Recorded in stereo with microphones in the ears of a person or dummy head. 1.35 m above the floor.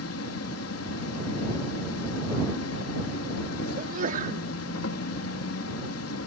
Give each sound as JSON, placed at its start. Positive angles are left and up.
{"t": 0.0, "sound": "an insect", "side_deg": 80}
{"t": 3.8, "sound": "a sneeze", "side_deg": -50}